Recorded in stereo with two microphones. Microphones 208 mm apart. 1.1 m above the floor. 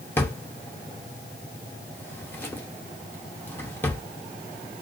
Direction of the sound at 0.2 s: 10° left (ahead or behind).